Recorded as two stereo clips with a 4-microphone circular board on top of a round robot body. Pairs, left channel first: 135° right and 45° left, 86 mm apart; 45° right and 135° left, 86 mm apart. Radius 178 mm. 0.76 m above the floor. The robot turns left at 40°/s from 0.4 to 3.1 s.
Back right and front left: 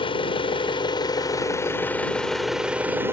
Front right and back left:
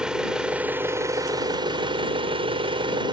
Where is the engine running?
145° right; by 3.1 s 110° left.